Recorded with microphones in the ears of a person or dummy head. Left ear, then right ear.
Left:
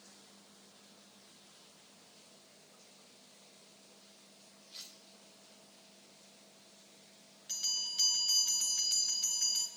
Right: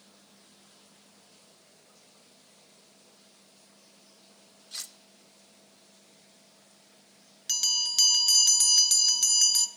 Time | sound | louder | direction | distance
4.7 | cutlery clinking | right 9 dB | 60° right (ahead or behind) | 0.9 m
7.5 | a bell | right 9 dB | 40° right (ahead or behind) | 1.0 m